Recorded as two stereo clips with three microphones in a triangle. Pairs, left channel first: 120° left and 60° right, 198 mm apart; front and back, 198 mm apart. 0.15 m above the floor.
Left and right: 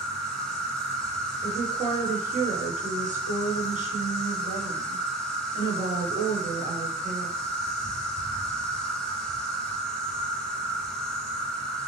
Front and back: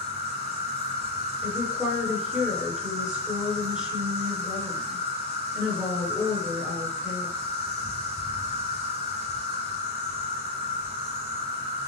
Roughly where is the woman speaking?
Right.